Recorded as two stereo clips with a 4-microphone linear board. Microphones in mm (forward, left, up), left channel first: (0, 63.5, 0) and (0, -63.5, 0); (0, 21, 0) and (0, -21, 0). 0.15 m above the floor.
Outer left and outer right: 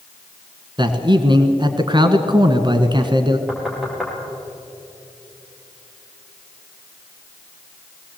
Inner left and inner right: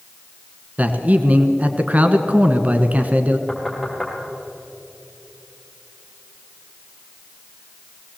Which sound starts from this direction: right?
A man speaking, at 0.8 s.